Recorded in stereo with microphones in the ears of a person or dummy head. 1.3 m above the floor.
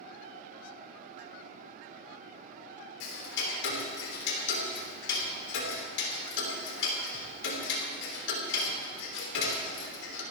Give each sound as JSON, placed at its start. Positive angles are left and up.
{"t": 3.0, "sound": "ticking", "side_deg": 75, "distance_m": 3.5}